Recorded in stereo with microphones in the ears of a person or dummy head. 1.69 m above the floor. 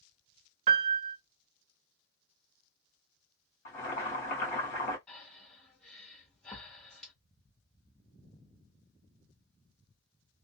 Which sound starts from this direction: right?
A piano, at 0.7 s.